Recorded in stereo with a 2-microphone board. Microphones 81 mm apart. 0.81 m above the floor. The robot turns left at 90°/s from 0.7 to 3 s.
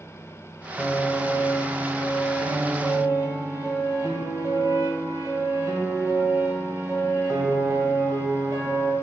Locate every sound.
0.8 s a piano: 160° left, 1.5 m; by 8.9 s 40° right, 1.5 m